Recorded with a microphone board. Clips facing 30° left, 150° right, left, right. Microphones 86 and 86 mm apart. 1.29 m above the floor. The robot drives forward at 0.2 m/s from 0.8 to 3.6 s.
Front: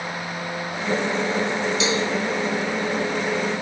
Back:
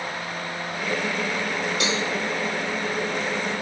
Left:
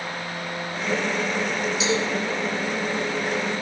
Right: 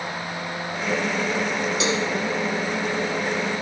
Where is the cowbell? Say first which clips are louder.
Front 3 dB, left 2 dB; 115° right, 2.5 m.